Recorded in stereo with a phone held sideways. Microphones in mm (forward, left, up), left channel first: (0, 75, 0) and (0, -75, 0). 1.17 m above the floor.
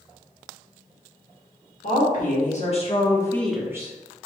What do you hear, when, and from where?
1.8 s a woman speaking: 65° left (ahead or behind), 2.0 m; by 3.9 s 30° right (ahead or behind), 0.9 m